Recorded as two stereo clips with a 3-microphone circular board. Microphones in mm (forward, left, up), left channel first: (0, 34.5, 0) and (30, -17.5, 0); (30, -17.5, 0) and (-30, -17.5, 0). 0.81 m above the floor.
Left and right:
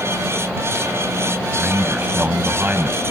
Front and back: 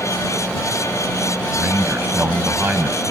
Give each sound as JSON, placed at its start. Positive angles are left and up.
{"t": 1.6, "sound": "a man speaking", "azimuth_deg": -120}